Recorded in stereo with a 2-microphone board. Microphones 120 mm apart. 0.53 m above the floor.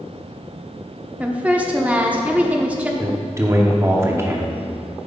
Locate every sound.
1.2 s a woman speaking: 10° right (ahead or behind), 0.8 m
3.0 s a man speaking: 25° right (ahead or behind), 0.8 m